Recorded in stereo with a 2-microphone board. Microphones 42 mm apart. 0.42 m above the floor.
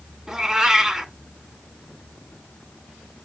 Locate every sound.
0.3 s a cat meowing: 10° right (ahead or behind), 1.5 m